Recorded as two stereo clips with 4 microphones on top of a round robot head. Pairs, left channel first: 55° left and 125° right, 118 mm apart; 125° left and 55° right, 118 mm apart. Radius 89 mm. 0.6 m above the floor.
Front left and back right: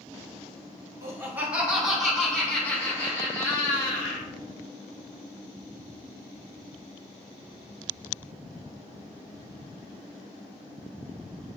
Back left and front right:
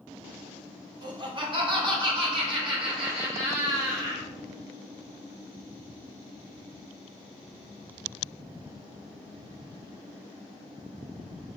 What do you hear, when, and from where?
1.0 s laughter: 75° right, 1.3 m; by 4.3 s 5° right, 2.5 m